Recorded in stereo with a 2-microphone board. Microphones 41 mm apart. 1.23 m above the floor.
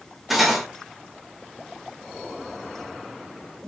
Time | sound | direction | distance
0.3 | cutlery clinking | 5° right (ahead or behind) | 0.9 m